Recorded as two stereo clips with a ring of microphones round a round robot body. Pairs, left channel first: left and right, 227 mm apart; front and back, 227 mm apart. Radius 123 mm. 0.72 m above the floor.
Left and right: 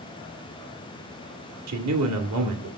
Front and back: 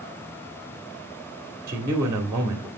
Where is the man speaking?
105° right, 1.7 m.